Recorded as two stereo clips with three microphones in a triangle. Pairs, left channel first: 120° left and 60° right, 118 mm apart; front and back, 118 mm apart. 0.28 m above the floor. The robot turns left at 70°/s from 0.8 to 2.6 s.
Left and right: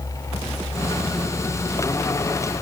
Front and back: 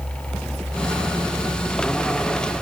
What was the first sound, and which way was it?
Only background noise.